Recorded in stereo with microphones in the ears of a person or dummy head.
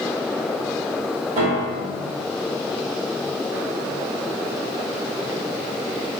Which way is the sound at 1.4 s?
35° right (ahead or behind).